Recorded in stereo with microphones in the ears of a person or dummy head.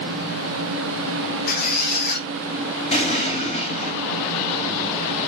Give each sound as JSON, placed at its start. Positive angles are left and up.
{"t": 1.5, "sound": "a squeak", "side_deg": 45, "distance_m": 0.9}
{"t": 2.9, "sound": "an explosion", "side_deg": 30, "distance_m": 4.0}